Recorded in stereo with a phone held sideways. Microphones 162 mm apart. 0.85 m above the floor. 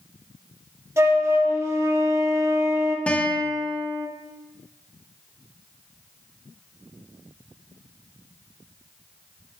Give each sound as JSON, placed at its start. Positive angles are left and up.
{"t": 1.0, "sound": "a flute", "side_deg": -15, "distance_m": 0.9}
{"t": 3.1, "sound": "a guitar", "side_deg": 10, "distance_m": 0.7}